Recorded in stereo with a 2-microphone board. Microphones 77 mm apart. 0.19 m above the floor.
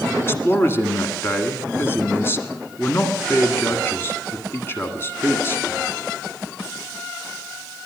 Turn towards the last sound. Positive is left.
turn(degrees=35)  # may be behind; listen again after turning